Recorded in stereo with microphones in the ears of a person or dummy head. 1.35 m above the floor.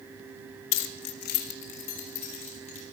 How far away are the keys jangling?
About 1.2 m.